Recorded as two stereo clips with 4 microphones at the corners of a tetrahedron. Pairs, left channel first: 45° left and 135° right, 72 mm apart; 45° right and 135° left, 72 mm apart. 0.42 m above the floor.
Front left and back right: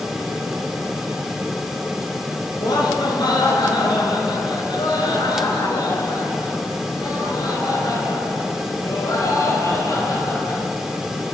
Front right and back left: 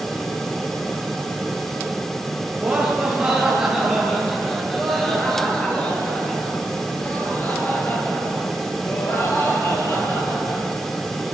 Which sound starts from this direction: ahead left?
Laughter, at 2.6 s.